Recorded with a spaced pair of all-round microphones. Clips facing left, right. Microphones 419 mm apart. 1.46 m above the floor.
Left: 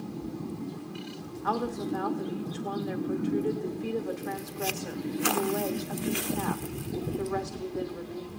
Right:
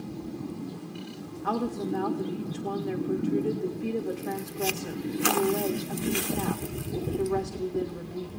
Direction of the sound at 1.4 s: 45° right (ahead or behind).